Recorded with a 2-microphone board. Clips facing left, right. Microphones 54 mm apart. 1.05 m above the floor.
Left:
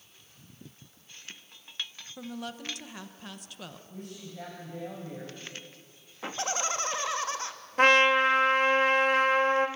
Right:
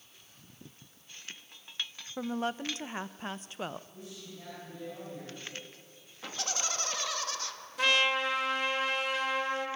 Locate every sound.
2.2 s a woman speaking: 35° right (ahead or behind), 0.8 m
3.9 s a woman speaking: 55° left (ahead or behind), 6 m
6.2 s laughter: 30° left (ahead or behind), 2 m
7.8 s a trumpet: 40° left (ahead or behind), 1.5 m